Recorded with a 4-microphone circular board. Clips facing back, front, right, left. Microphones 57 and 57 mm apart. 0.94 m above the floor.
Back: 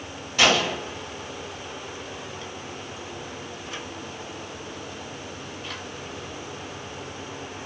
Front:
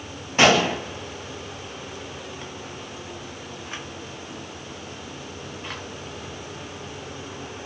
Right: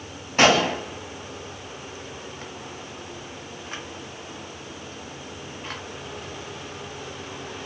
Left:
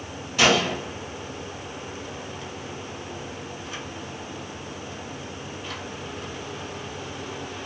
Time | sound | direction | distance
0.4 | a gunshot | 50° right | 0.7 m